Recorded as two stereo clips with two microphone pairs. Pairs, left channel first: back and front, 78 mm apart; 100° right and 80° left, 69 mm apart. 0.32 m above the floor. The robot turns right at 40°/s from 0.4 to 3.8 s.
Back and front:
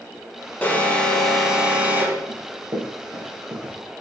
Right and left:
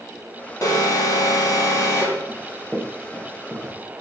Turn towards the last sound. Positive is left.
turn(degrees=25)